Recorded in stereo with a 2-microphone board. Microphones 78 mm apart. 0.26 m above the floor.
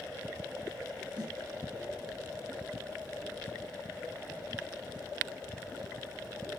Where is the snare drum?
65° right (ahead or behind), 1.4 m.